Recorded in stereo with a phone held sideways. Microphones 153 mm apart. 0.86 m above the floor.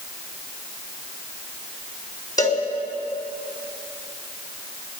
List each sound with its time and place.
2.4 s a cowbell: 25° left (ahead or behind), 3 m